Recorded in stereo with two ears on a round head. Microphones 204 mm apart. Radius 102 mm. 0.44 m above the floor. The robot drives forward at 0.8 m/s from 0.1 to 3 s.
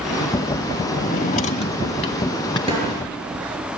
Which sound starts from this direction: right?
A snare drum, at 2.7 s.